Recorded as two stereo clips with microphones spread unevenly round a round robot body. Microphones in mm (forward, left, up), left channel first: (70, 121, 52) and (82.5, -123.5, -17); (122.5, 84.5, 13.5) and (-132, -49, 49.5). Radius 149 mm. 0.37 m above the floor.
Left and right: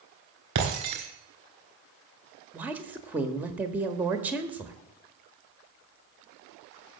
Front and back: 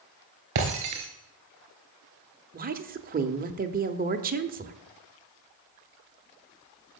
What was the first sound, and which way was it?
Breaking glass, 120° right.